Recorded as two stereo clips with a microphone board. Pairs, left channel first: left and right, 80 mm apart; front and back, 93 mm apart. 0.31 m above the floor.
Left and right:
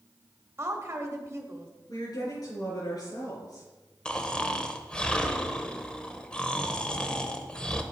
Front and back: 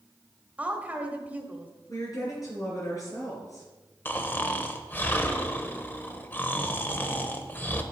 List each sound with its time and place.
0.6 s a woman speaking: 115° right, 1.1 m
1.9 s a woman speaking: 50° left, 5 m
4.0 s snoring: 30° left, 0.8 m